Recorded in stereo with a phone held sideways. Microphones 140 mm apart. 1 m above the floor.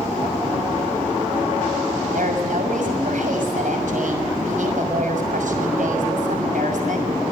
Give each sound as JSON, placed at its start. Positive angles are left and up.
{"t": 2.1, "sound": "a woman speaking", "side_deg": -70, "distance_m": 6.5}